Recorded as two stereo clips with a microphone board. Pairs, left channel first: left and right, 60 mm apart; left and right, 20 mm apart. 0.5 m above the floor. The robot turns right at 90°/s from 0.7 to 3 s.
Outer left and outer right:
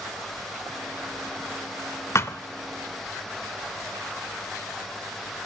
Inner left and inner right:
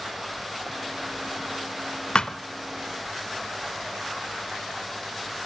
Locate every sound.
2.1 s a thud: 50° left (ahead or behind), 0.6 m; by 2.4 s 30° left (ahead or behind), 0.6 m